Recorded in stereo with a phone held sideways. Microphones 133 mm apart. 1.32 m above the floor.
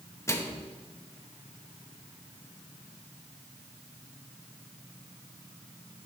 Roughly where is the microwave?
Left.